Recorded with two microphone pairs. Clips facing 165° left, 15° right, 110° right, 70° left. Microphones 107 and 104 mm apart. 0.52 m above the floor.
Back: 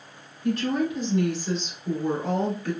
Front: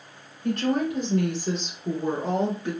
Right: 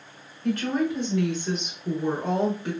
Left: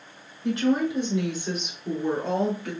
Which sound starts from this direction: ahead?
A woman speaking, at 0.4 s.